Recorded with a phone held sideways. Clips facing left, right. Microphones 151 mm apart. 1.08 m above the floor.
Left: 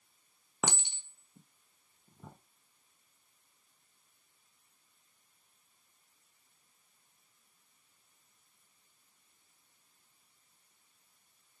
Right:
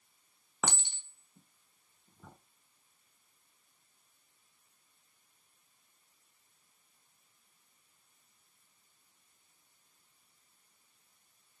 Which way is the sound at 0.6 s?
15° left (ahead or behind).